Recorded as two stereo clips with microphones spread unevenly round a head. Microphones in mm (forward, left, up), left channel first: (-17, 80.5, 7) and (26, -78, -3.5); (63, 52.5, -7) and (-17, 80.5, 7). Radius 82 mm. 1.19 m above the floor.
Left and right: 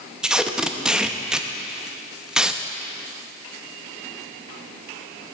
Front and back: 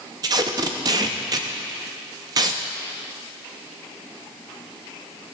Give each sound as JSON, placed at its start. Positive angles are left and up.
{"t": 0.2, "sound": "tape being pulled", "azimuth_deg": -160, "distance_m": 0.6}